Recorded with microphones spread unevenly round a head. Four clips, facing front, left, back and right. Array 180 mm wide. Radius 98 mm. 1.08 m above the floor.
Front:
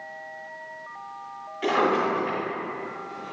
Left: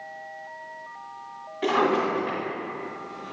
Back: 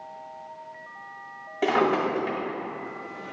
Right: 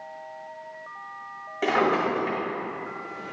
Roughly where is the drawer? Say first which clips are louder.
Even, even; behind.